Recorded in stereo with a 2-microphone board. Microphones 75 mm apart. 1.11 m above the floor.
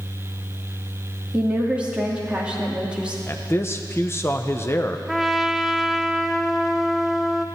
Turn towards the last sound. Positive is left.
turn(degrees=-5)  # may be behind; listen again after turning